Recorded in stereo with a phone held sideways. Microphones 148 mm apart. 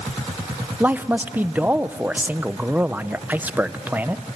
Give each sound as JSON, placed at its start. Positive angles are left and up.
{"t": 0.8, "sound": "a man speaking", "side_deg": -10, "distance_m": 0.6}